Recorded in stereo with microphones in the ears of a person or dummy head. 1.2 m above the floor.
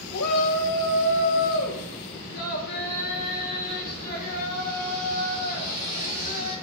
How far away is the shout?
About 1.7 m.